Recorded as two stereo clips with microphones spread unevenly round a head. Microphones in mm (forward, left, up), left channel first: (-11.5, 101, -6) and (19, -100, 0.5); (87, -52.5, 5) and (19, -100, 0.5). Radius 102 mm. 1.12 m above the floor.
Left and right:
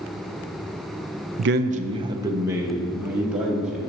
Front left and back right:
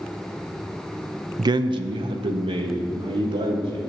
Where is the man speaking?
105° right, 0.5 m; by 3.8 s 170° right, 2.5 m.